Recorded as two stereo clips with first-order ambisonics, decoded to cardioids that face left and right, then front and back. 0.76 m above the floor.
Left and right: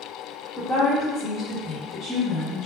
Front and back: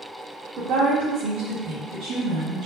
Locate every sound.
0.6 s a woman speaking: 175° left, 1.6 m; by 2.7 s 150° right, 0.8 m